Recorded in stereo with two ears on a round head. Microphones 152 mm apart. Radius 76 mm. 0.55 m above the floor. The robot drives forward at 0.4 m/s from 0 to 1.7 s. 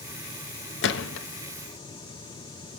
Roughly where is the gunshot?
Left.